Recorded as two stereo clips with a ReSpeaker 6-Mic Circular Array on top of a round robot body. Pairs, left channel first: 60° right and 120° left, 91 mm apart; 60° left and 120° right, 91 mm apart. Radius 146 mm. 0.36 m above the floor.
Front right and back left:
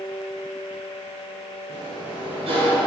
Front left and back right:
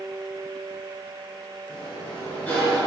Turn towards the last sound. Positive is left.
turn(degrees=135)